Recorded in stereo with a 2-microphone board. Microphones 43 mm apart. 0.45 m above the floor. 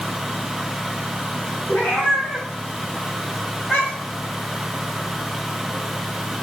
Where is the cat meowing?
50° left (ahead or behind), 2.5 m; by 4.2 s 30° left (ahead or behind), 2.5 m.